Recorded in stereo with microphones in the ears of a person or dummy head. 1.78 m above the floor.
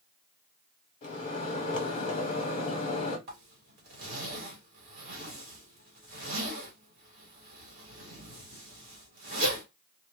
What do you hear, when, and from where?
1.0 s a microwave: 35° left (ahead or behind), 1.0 m
3.3 s a zipper: 45° right (ahead or behind), 1.2 m